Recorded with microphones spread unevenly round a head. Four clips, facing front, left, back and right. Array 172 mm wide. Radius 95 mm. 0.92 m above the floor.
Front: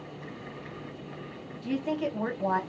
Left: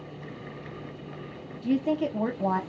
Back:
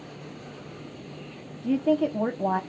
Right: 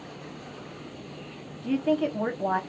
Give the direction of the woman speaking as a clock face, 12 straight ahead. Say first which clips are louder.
Right 1 dB, back 7 dB; 7 o'clock.